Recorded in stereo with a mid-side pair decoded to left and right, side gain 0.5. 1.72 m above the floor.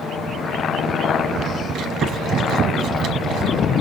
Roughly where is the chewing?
Ahead right.